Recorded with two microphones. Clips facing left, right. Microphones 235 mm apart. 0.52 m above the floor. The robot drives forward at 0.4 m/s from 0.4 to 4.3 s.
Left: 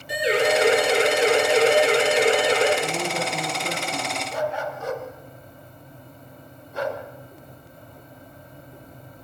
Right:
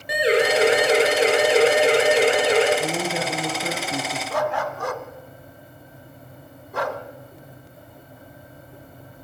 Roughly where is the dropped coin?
I don't hear a dropped coin.